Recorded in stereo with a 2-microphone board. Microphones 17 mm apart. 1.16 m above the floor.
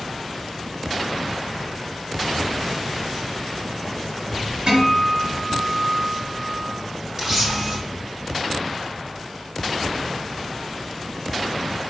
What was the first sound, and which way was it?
A guitar, 50° right (ahead or behind).